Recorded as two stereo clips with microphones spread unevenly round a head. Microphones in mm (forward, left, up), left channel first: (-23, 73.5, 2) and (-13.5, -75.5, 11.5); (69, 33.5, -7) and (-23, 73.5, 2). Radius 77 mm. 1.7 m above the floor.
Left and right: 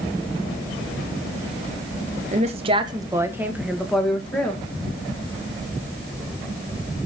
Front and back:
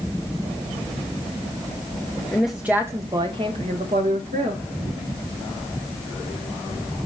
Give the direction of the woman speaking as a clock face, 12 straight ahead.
4 o'clock.